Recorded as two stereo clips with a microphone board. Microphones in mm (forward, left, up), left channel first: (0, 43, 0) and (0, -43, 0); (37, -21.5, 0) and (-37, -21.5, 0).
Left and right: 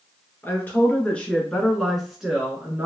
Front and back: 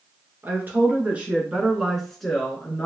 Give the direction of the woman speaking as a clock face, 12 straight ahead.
7 o'clock.